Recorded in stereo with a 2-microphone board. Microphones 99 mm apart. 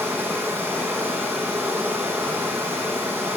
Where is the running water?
20° right (ahead or behind), 3 m.